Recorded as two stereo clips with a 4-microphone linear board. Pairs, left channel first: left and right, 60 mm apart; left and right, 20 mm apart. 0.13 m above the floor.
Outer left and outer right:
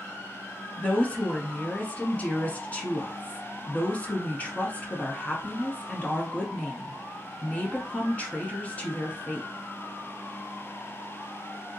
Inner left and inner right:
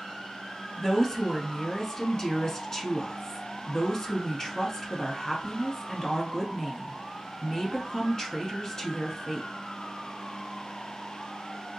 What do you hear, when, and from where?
0.8 s a woman speaking: 25° left (ahead or behind), 1.1 m